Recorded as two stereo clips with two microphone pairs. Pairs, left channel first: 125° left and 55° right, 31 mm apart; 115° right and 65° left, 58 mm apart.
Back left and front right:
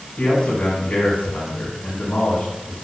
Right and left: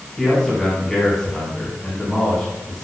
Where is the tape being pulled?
No tape being pulled in this recording.